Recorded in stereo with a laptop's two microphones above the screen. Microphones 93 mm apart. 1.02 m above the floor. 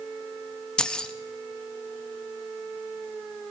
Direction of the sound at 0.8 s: 10° left (ahead or behind).